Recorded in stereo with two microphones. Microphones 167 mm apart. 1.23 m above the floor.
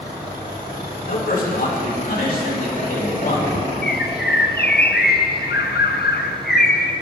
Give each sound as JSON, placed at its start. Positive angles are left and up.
{"t": 1.1, "sound": "a man speaking", "side_deg": 65, "distance_m": 4.5}
{"t": 3.8, "sound": "a bird", "side_deg": 70, "distance_m": 0.9}